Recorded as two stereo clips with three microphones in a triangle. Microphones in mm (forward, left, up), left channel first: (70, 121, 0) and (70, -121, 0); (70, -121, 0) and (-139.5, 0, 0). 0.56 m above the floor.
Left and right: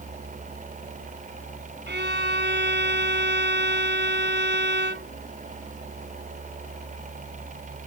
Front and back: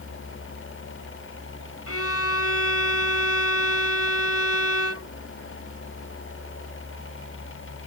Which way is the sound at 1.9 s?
45° right.